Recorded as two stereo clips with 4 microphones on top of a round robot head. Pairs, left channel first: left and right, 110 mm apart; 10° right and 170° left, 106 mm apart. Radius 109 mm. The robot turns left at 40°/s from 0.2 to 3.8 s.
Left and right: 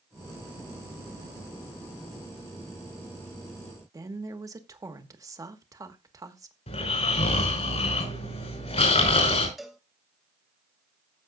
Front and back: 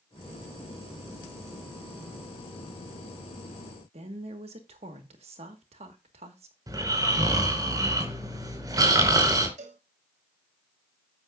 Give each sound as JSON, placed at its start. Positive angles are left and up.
{"t": 3.9, "sound": "a woman speaking", "azimuth_deg": -150, "distance_m": 1.6}
{"t": 6.7, "sound": "snoring", "azimuth_deg": 115, "distance_m": 5.0}
{"t": 9.6, "sound": "a cowbell", "azimuth_deg": 180, "distance_m": 1.4}